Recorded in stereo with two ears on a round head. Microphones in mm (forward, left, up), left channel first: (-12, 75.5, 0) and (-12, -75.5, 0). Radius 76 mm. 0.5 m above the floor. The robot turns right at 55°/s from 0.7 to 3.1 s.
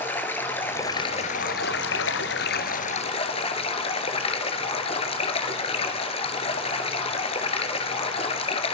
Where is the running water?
10° left, 2 m; by 8.8 s 145° left, 2 m.